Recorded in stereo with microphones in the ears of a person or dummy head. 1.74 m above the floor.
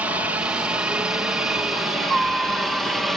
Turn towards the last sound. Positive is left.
turn(degrees=0)  # may be behind; listen again after turning